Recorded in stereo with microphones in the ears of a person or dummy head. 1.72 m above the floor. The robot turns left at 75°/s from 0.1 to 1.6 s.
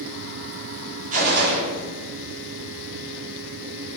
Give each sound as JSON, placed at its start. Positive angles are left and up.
{"t": 1.1, "sound": "a gunshot", "azimuth_deg": -45, "distance_m": 0.7}